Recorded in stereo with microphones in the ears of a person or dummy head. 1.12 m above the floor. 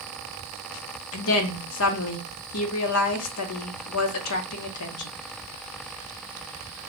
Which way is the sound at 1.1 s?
80° left.